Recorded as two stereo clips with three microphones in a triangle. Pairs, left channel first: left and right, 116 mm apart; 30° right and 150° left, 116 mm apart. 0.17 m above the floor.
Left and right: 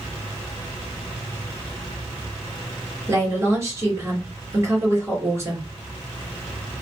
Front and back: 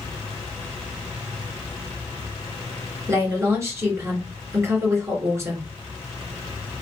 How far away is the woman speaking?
About 2.5 m.